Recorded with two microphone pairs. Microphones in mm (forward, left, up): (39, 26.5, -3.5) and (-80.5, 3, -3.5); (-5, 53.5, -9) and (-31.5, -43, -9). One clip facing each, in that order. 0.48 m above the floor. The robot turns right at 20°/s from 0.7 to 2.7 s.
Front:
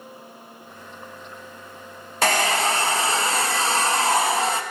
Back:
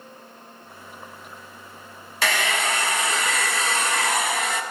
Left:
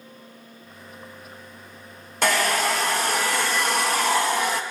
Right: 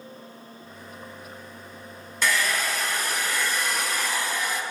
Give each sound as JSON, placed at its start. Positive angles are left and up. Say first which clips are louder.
{"t": 2.2, "sound": "a hair dryer", "louder": "front 4 dB, left 4 dB", "azimuth_deg": 60, "distance_m": 0.6}